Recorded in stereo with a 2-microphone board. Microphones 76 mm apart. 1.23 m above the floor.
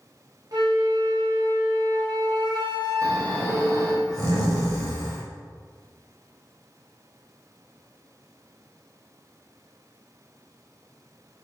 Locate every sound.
0.5 s a flute: 60° right (ahead or behind), 1.1 m
3.0 s snoring: 50° right (ahead or behind), 1.3 m